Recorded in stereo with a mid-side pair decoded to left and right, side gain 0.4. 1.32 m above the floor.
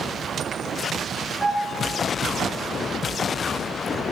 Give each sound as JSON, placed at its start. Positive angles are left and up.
{"t": 1.4, "sound": "a piano", "azimuth_deg": 20, "distance_m": 5.5}